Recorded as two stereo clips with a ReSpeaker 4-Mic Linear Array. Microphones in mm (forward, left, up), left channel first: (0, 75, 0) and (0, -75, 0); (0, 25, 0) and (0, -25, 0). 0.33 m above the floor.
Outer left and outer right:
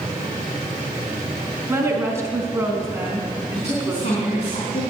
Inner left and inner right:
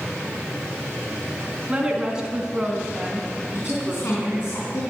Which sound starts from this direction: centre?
A woman speaking, at 1.7 s.